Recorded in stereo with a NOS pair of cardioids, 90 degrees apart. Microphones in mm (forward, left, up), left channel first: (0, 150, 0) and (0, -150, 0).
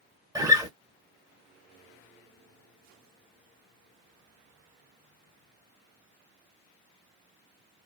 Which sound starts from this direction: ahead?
A guitar, at 0.3 s.